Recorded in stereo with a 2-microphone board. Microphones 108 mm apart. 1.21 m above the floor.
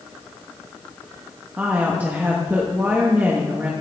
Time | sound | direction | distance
1.6 | a woman speaking | 15° right (ahead or behind) | 1.3 m